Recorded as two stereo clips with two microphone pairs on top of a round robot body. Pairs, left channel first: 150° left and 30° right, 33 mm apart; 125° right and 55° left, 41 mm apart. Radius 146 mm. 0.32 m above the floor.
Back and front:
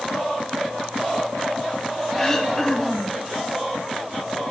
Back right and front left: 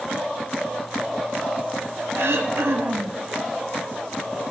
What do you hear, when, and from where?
2.1 s throat clearing: 75° left, 1.2 m